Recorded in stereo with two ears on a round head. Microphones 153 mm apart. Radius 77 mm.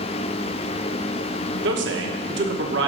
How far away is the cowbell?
No cowbell in this recording.